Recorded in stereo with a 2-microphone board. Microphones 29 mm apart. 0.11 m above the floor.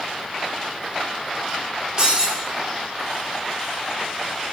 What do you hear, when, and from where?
2.0 s breaking glass: 25° right (ahead or behind), 4.5 m